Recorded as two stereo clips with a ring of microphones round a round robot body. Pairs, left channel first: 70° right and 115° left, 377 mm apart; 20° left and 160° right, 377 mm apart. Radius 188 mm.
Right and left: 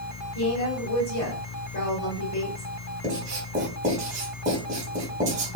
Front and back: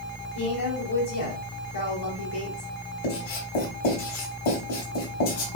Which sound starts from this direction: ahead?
A woman speaking, at 0.3 s.